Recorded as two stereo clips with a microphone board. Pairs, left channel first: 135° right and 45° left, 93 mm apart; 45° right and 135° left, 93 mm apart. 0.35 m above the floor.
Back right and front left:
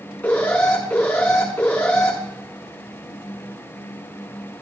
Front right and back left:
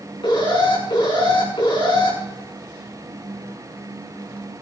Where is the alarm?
60° right, 6.5 m.